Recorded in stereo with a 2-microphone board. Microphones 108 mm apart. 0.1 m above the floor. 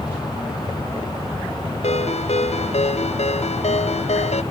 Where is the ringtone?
80° left.